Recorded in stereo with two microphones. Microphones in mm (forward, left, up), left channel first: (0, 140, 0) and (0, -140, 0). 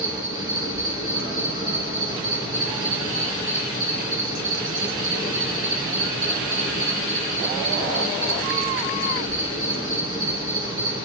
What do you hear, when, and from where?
0.0 s an insect: 15° right (ahead or behind), 3 m